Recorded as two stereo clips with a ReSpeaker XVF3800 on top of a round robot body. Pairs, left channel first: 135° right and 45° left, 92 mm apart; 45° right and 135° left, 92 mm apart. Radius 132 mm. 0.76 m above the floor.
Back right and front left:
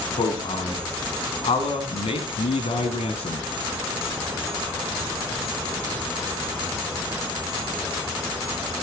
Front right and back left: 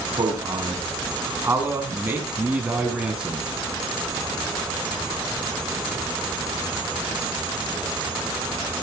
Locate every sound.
0.2 s a man speaking: 170° right, 7 m; by 3.5 s 145° right, 7 m